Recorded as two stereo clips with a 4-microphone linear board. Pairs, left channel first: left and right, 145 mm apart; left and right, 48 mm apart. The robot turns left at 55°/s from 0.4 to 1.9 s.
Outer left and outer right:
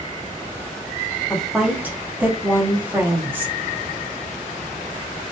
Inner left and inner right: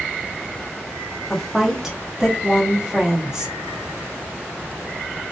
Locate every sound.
1.3 s a woman speaking: 10° left, 0.8 m; by 3.5 s 20° right, 0.8 m